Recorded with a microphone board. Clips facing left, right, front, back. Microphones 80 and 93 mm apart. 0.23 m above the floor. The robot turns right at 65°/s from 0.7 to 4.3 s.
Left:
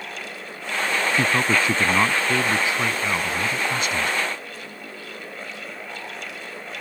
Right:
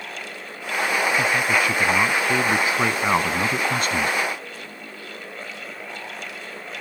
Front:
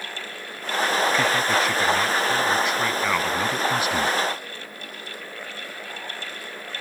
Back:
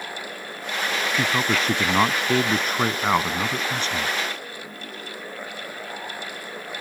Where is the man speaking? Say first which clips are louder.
Left 3 dB, front 2 dB; 110° left; by 4.2 s 55° right.